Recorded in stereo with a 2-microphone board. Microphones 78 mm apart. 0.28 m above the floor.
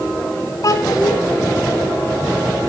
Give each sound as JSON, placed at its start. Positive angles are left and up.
{"t": 0.6, "sound": "a child speaking", "side_deg": 50, "distance_m": 2.0}